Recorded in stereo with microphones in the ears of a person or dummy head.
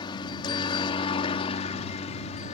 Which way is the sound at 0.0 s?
15° left (ahead or behind).